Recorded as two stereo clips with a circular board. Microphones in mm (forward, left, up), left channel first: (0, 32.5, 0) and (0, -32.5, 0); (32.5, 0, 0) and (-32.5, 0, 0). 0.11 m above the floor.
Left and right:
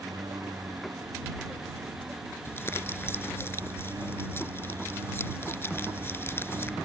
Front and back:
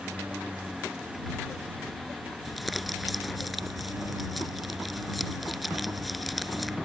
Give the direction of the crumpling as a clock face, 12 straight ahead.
9 o'clock.